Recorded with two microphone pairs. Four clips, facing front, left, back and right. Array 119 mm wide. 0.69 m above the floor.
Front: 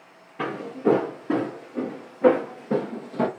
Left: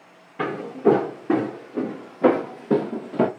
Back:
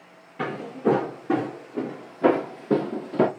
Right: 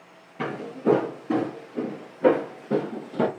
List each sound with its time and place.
0.4 s footsteps: 85° left, 2 m; by 3.3 s 140° left, 0.9 m